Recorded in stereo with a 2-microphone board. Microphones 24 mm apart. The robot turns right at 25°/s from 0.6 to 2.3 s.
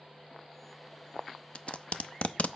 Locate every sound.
1.6 s tape being pulled: 60° left (ahead or behind), 0.7 m; by 2.5 s 70° left (ahead or behind), 0.7 m